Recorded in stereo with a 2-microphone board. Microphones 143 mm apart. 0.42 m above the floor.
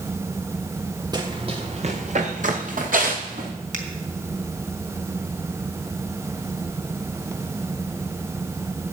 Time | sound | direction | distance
1.1 | running footsteps | 30° right (ahead or behind) | 2 m
3.7 | a finger snap | 70° right (ahead or behind) | 2.5 m